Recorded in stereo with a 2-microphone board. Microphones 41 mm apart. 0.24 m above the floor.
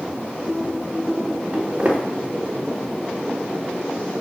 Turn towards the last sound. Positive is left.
turn(degrees=-30)  # may be behind; listen again after turning